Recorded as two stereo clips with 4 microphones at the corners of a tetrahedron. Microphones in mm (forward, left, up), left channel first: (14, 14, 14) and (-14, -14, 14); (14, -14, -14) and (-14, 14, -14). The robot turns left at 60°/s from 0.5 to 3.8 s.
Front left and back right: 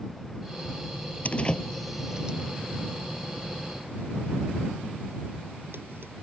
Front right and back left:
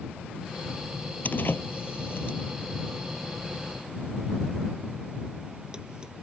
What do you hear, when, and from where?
1.2 s a door slam: 5° right; by 6.2 s 160° right